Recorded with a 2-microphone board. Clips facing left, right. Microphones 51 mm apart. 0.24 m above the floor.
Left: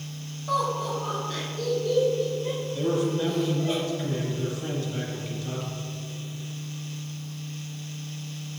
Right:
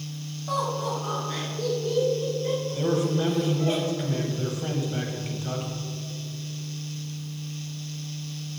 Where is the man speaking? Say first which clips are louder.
Left 1 dB; 20° right (ahead or behind), 1.0 m.